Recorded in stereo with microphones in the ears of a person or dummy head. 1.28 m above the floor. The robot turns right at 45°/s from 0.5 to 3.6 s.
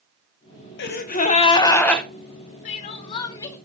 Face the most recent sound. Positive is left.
turn(degrees=165)